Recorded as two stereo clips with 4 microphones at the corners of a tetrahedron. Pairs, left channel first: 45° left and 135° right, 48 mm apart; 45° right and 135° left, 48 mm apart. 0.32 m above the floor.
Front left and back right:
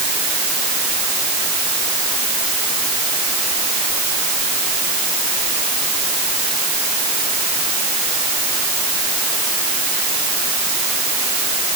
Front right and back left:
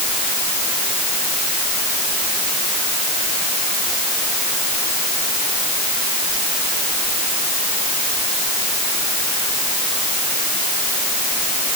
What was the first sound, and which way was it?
Only background noise.